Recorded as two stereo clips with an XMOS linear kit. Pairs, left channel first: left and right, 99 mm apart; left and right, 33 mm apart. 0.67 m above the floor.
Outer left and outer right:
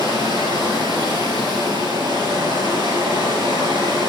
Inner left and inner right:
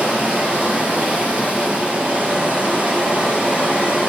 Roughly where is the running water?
Right.